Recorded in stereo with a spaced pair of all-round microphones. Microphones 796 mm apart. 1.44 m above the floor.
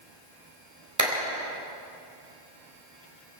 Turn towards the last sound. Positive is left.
turn(degrees=-20)  # may be behind; listen again after turning